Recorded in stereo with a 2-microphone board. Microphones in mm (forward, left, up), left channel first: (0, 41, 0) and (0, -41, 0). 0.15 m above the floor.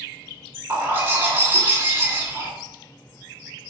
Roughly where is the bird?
Right.